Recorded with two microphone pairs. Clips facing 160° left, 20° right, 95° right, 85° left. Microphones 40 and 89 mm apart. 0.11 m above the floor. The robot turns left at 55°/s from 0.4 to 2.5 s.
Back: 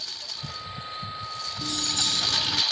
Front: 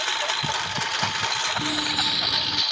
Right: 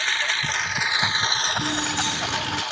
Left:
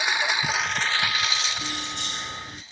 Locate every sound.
0.0 s a lawn mower: 5° left; by 2.7 s 110° right
1.6 s keys jangling: 55° right; by 2.6 s 105° right